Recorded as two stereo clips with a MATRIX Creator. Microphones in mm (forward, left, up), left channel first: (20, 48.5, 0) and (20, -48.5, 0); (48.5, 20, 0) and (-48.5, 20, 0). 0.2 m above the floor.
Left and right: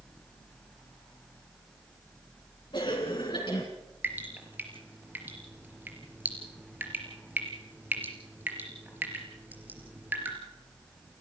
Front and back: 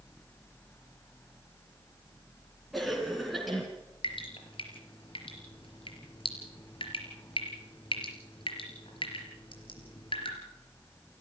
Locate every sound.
2.7 s a cough: 90° left, 2.5 m
4.0 s dripping: 20° right, 4 m